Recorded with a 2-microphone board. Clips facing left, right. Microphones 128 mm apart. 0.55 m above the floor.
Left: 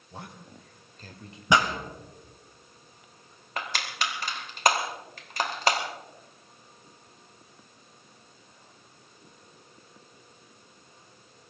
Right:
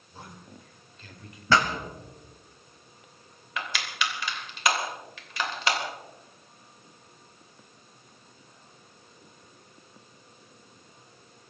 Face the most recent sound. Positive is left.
turn(degrees=40)  # may be behind; listen again after turning